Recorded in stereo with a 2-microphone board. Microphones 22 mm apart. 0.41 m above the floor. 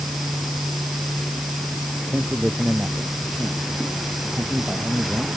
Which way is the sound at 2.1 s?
50° right (ahead or behind).